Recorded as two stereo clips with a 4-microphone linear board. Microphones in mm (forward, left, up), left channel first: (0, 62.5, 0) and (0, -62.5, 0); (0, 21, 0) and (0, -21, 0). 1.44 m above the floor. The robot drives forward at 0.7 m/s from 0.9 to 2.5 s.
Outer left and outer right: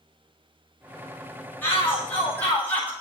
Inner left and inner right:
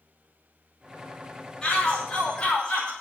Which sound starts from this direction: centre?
A shout, at 1.6 s.